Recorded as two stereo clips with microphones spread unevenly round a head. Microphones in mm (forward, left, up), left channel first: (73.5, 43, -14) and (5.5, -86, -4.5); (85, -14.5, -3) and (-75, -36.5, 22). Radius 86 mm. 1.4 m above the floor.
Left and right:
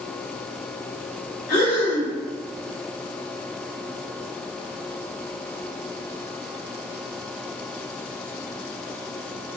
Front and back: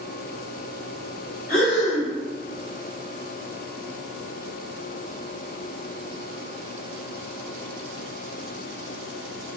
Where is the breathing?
45° left, 1.9 m.